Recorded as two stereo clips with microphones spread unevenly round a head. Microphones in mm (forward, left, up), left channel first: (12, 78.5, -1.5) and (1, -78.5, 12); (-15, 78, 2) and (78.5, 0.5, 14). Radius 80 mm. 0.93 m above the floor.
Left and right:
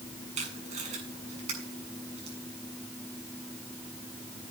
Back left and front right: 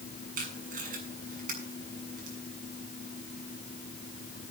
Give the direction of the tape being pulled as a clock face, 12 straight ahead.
1 o'clock.